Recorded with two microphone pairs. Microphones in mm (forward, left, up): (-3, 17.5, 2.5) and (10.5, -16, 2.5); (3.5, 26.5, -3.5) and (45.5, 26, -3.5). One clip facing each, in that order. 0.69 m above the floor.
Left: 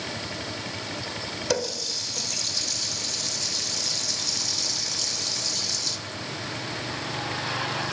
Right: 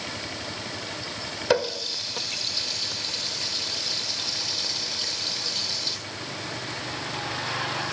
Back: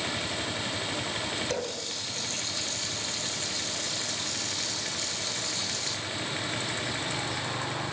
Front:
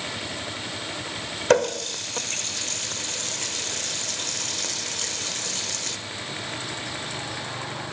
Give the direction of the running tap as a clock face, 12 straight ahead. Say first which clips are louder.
Right 5 dB, front 12 dB; 12 o'clock.